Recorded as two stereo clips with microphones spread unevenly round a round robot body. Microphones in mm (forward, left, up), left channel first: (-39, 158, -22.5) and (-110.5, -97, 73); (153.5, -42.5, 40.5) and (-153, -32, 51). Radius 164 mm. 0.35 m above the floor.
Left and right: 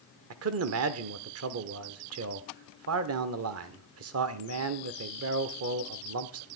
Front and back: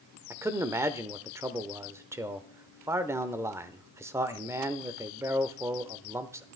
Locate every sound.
0.3 s a man speaking: 105° right, 0.9 m